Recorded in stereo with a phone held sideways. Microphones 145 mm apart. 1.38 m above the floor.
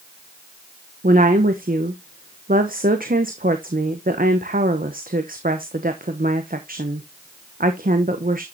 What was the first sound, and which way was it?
A woman speaking, 80° right.